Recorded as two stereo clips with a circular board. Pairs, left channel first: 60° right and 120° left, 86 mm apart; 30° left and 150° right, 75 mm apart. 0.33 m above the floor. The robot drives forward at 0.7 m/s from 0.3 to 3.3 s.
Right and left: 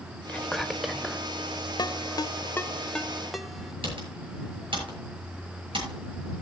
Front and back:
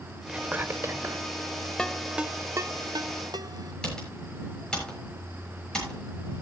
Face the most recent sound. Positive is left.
turn(degrees=110)